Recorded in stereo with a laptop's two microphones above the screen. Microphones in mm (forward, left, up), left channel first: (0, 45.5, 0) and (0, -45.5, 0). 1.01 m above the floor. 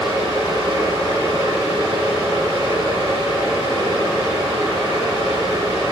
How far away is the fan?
About 2 m.